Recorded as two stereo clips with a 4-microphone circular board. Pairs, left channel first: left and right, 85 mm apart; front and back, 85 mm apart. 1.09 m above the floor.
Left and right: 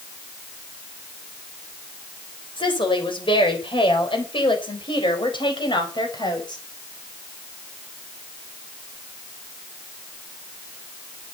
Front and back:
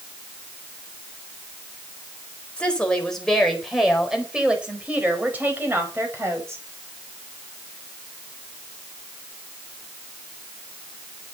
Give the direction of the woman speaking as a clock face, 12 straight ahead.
9 o'clock.